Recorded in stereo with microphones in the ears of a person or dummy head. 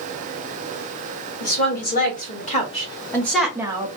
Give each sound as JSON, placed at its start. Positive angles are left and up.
{"t": 1.4, "sound": "a woman speaking", "side_deg": 60, "distance_m": 1.3}